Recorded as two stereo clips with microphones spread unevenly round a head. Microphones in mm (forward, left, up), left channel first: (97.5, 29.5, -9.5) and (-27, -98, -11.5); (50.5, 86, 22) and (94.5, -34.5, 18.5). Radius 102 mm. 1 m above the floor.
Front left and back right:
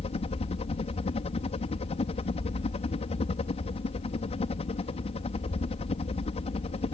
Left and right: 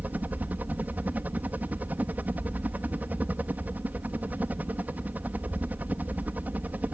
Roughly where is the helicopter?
Ahead.